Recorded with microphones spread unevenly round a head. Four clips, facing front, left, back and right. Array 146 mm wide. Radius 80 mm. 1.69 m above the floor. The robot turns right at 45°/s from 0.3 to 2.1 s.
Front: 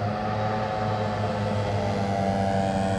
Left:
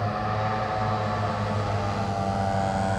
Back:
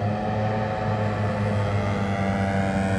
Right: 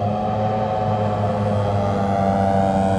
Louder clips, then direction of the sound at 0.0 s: Right 6 dB, back 1 dB; 145° right.